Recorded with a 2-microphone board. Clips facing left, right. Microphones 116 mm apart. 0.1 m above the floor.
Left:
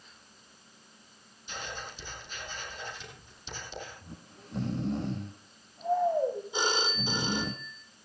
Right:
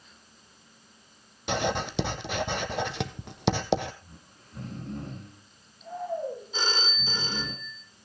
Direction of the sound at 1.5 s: 70° right (ahead or behind).